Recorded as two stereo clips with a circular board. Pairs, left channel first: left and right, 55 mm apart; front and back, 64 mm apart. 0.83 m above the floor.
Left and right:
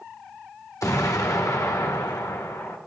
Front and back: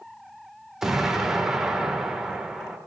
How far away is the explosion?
About 1.6 m.